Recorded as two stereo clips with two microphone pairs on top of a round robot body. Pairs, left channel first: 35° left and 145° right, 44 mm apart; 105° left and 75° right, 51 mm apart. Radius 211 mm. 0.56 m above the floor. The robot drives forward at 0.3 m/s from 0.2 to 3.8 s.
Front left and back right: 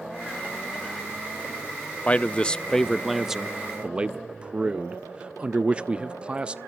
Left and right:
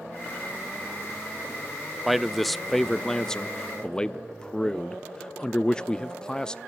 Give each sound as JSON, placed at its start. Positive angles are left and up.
{"t": 2.0, "sound": "a man speaking", "azimuth_deg": 25, "distance_m": 0.6}